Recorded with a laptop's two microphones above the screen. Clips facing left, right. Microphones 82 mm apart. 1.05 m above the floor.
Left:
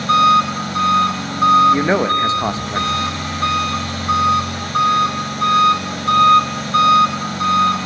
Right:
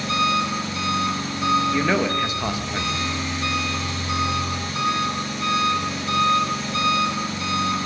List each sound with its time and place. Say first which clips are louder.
0.0 s an engine running: left 9 dB; 60° left (ahead or behind), 3.5 m
1.7 s a man speaking: left 6 dB; 30° left (ahead or behind), 0.7 m